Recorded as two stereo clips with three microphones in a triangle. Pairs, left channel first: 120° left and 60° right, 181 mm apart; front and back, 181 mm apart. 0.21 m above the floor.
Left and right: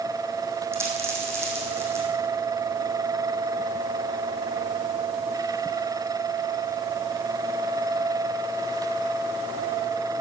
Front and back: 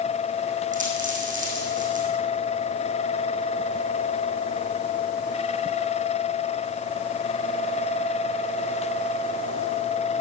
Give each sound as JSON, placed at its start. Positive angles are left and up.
{"t": 0.7, "sound": "a dropped coin", "azimuth_deg": -135, "distance_m": 3.5}